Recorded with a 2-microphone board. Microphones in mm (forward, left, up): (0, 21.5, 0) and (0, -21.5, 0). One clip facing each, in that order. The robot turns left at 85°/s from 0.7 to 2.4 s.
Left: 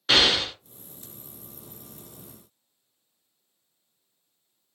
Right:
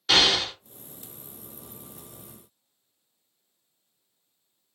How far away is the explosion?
About 1.8 m.